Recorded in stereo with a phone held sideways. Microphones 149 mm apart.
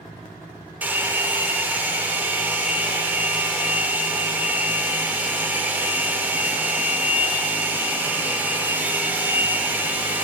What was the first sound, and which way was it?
A hair dryer, 10° right (ahead or behind).